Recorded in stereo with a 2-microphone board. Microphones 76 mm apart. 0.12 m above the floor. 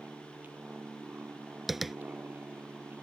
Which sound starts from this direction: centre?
Tapping, at 1.7 s.